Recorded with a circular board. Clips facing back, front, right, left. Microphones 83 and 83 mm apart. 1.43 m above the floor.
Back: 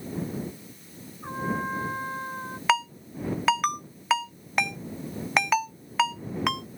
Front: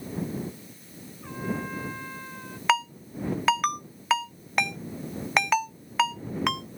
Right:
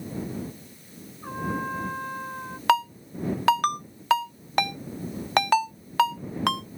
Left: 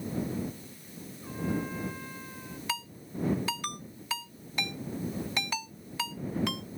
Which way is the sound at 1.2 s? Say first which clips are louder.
Back 3 dB, right 3 dB; 125° right.